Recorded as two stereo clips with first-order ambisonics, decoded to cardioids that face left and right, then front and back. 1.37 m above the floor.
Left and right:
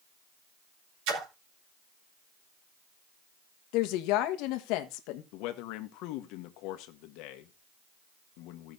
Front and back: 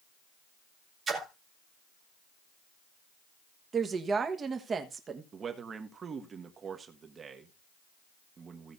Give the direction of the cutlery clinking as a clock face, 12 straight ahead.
I don't hear cutlery clinking.